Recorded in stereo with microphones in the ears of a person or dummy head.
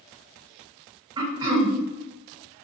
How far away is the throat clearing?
About 0.5 m.